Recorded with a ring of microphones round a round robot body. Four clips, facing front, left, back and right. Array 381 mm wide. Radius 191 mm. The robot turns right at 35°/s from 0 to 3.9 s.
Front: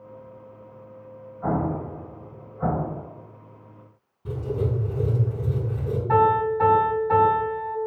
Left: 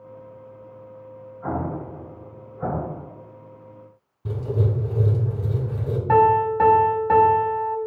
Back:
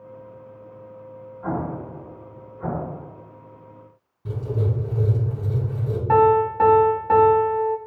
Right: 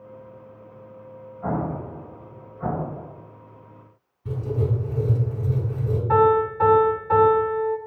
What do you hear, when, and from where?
1.4 s an explosion: 15° right, 2 m; by 3.1 s 40° left, 2 m
4.2 s writing: 95° left, 3 m
6.1 s a piano: 125° left, 2.5 m